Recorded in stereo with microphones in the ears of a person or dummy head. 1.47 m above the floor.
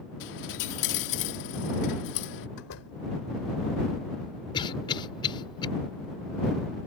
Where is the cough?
30° left (ahead or behind).